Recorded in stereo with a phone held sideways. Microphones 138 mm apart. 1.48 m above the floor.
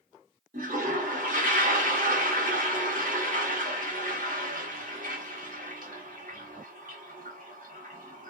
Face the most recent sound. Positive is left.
turn(degrees=-65)  # may be behind; listen again after turning